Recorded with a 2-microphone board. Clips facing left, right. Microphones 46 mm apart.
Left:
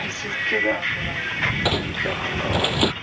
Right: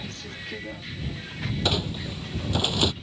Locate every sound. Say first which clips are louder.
0.0 s a vehicle: left 12 dB; 60° left (ahead or behind); by 3.0 s 55° left (ahead or behind)
1.6 s a squeak: left 5 dB; 20° left (ahead or behind)